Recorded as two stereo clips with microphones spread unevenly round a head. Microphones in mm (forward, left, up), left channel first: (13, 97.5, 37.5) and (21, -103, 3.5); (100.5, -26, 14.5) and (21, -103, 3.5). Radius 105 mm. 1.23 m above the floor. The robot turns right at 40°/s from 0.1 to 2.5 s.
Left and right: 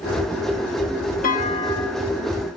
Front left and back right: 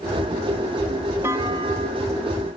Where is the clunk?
145° left; by 2.1 s straight behind.